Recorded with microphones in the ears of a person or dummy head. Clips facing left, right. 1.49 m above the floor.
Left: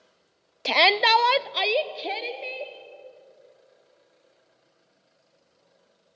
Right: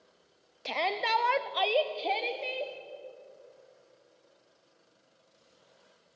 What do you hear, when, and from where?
0.7 s a shout: 60° left (ahead or behind), 0.6 m; by 2.7 s 5° left (ahead or behind), 1.3 m